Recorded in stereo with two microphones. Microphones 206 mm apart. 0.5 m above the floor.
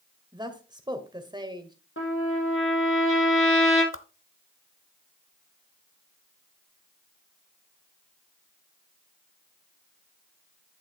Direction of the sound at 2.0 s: 85° left.